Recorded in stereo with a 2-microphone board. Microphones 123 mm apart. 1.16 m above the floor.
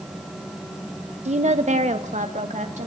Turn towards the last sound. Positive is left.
turn(degrees=-80)